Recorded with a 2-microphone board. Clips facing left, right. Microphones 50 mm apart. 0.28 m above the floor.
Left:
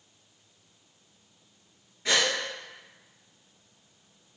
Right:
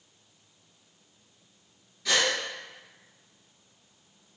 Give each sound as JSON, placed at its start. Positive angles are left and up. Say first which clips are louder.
{"t": 2.0, "sound": "a gasp", "louder": "even", "side_deg": 30, "distance_m": 1.6}